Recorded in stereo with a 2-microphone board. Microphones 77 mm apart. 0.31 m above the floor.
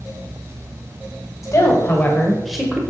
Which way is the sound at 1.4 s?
45° left (ahead or behind).